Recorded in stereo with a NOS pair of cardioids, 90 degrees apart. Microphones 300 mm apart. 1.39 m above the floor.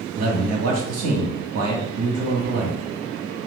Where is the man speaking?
55° right, 1.6 m.